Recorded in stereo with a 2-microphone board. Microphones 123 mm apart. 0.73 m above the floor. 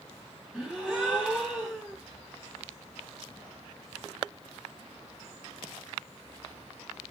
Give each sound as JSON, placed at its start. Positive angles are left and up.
{"t": 0.5, "sound": "a gasp", "side_deg": -5, "distance_m": 1.7}